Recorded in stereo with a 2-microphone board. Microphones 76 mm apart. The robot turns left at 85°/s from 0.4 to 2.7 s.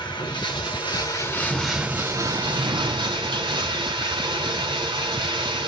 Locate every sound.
0.0 s running water: 110° left, 3 m; by 5.7 s 85° right, 3 m
1.5 s a sliding door: 30° left, 2.5 m; by 3.6 s 70° right, 2.5 m